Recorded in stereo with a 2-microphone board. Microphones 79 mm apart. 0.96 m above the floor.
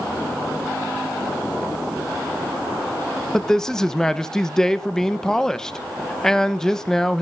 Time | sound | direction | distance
3.3 | a man speaking | 5° left (ahead or behind) | 0.7 m